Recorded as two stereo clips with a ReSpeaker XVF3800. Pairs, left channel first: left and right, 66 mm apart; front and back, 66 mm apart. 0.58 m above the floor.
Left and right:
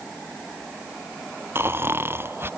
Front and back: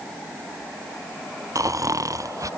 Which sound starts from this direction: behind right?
Snoring, at 1.6 s.